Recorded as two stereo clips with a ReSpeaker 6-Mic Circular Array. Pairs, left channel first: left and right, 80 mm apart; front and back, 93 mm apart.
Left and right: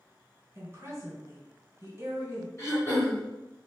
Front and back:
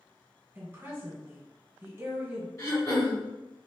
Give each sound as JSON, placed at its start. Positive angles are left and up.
{"t": 0.6, "sound": "a woman speaking", "azimuth_deg": -125, "distance_m": 1.7}
{"t": 2.6, "sound": "throat clearing", "azimuth_deg": 45, "distance_m": 1.8}